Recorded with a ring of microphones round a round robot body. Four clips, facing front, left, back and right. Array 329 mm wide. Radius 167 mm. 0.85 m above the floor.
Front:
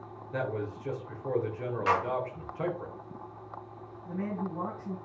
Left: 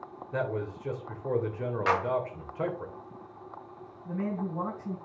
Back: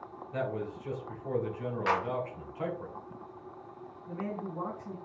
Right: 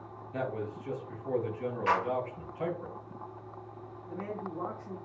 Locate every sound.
0.3 s a man speaking: 75° left, 3.5 m
1.9 s a clap: 95° left, 4.5 m
4.0 s a man speaking: 80° left, 5.5 m